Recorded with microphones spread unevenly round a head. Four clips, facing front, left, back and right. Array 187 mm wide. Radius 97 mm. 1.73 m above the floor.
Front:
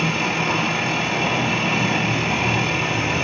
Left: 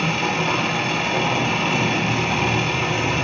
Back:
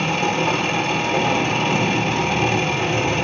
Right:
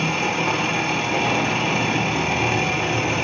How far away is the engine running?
About 5 m.